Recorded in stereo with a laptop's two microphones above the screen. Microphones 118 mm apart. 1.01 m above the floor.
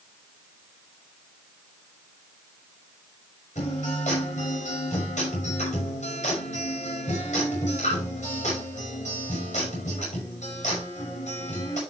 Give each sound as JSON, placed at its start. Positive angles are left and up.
{"t": 3.5, "sound": "a guitar", "side_deg": 85, "distance_m": 5.5}